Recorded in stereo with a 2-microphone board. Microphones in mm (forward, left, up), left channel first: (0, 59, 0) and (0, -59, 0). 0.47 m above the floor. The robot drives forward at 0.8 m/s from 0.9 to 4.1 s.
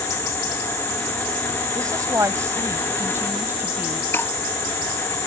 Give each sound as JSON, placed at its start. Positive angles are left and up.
{"t": 1.8, "sound": "a woman speaking", "side_deg": -30}
{"t": 4.1, "sound": "breaking glass", "side_deg": 20}